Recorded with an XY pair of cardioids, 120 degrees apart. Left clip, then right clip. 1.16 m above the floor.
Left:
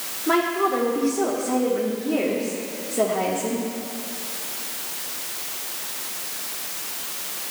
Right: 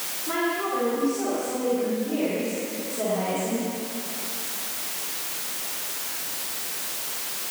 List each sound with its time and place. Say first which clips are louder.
0.3 s a woman speaking: left 6 dB; 60° left, 2.5 m